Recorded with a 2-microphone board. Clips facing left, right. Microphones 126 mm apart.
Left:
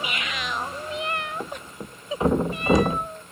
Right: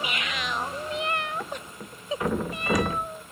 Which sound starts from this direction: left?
A thud, at 1.4 s.